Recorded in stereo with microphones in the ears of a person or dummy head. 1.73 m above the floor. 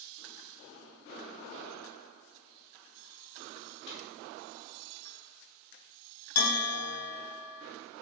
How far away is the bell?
About 1.4 m.